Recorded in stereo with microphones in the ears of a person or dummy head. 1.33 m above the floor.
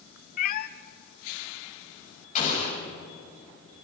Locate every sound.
0.4 s a cat meowing: 45° left (ahead or behind), 1.0 m
2.4 s an explosion: 45° left (ahead or behind), 7.5 m